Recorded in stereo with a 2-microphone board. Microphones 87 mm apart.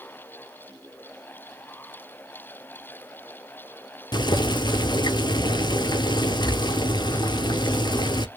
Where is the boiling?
55° left (ahead or behind), 0.6 m.